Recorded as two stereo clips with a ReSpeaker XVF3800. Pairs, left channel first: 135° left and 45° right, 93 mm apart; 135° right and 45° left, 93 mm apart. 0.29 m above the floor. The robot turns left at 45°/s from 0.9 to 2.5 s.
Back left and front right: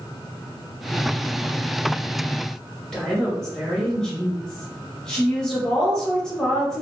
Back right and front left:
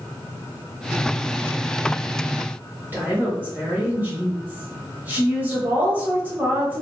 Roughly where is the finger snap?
I don't hear a finger snap.